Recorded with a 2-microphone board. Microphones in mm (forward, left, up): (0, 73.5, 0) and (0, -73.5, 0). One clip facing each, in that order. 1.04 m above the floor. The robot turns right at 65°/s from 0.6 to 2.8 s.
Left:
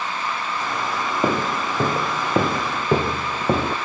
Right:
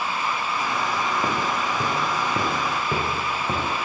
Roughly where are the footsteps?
Left.